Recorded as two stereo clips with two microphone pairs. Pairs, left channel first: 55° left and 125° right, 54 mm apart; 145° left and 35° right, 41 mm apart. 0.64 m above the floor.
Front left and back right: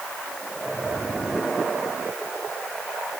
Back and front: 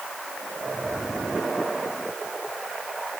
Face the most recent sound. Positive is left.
No sound to turn to.